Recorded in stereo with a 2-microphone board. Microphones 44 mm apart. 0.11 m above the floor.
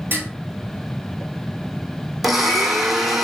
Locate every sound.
0.1 s dishes clattering: 55° right (ahead or behind), 1.8 m
2.2 s a blender: centre (ahead or behind), 1.0 m